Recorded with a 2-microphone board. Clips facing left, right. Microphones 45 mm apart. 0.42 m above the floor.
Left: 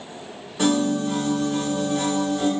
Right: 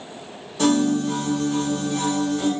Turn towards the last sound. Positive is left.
turn(degrees=10)  # may be behind; listen again after turning